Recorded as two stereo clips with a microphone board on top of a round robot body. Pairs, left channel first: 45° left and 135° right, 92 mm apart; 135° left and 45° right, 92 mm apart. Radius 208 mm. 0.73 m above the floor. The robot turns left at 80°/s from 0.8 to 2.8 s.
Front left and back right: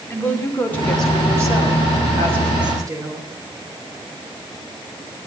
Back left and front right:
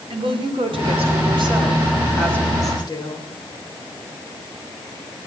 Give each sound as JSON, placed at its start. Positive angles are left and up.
{"t": 0.1, "sound": "a woman speaking", "azimuth_deg": -25, "distance_m": 3.5}